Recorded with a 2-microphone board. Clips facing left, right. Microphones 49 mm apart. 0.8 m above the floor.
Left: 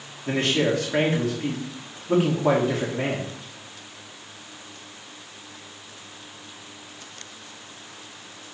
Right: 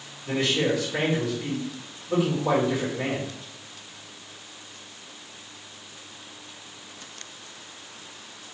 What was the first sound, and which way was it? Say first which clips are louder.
A man speaking: left 2 dB; 55° left (ahead or behind).